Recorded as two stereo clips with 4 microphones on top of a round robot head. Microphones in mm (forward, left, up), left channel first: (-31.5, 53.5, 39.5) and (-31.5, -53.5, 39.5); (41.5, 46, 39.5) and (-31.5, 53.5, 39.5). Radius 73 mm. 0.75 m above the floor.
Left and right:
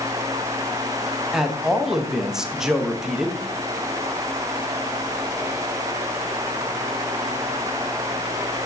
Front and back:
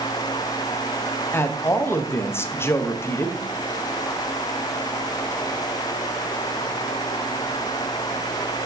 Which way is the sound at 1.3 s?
5° right.